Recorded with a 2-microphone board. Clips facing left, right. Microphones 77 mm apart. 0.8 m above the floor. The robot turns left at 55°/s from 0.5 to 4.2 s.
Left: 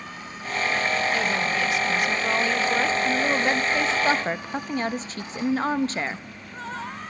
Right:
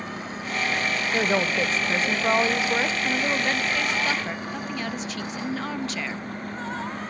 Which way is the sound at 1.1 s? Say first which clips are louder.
Right 1 dB; 75° right.